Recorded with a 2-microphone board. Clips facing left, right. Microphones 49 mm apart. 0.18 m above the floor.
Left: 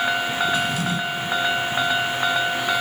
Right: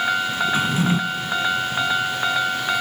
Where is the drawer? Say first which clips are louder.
Right 3 dB; 30° right (ahead or behind), 0.6 m.